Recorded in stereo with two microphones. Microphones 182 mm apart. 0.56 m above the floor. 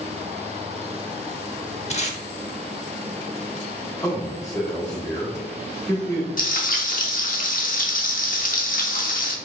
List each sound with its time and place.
1.9 s tape being pulled: 40° left (ahead or behind), 0.5 m
4.0 s a man speaking: 15° left (ahead or behind), 1.4 m
6.4 s frying: 50° left (ahead or behind), 0.6 m